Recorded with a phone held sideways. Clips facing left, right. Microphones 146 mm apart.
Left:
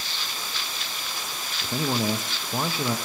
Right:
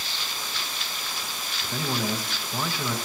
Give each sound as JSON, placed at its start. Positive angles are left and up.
{"t": 1.6, "sound": "a man speaking", "side_deg": 25, "distance_m": 0.6}